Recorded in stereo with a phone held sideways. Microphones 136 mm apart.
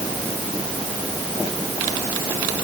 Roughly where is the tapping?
I don't hear tapping.